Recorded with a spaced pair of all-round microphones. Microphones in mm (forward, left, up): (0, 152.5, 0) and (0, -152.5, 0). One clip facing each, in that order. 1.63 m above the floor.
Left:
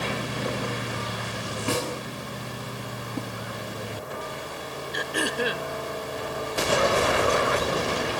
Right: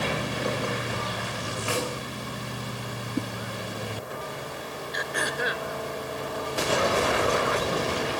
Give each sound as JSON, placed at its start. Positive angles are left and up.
{"t": 1.7, "sound": "a snare drum", "side_deg": 50, "distance_m": 9.5}
{"t": 3.2, "sound": "a whoosh", "side_deg": -20, "distance_m": 1.1}
{"t": 4.9, "sound": "throat clearing", "side_deg": 35, "distance_m": 1.0}